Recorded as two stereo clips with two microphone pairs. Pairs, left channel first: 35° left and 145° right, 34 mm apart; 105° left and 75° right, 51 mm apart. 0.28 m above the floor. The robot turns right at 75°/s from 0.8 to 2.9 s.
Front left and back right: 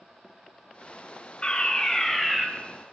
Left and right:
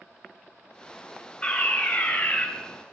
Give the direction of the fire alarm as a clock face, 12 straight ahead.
10 o'clock.